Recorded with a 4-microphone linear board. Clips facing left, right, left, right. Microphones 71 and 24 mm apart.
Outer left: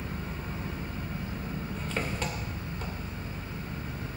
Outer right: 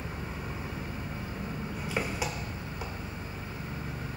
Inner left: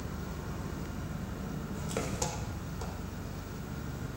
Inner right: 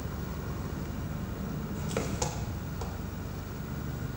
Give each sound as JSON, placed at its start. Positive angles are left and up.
{"t": 0.0, "sound": "an engine running", "side_deg": -10, "distance_m": 2.5}